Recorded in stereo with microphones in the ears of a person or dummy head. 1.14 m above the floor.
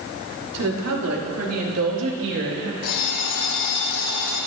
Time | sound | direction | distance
0.5 | a woman speaking | 85° right | 3 m
2.8 | an alarm clock | 85° left | 5.5 m